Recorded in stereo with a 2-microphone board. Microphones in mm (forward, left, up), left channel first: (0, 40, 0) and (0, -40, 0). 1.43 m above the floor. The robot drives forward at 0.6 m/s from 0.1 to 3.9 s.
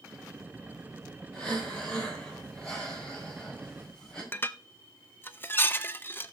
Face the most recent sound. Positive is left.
turn(degrees=25)  # may be behind; listen again after turning